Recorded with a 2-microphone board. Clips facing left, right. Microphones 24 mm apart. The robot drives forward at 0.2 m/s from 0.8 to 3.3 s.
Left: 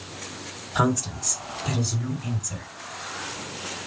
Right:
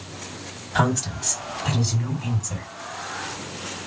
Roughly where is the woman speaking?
Right.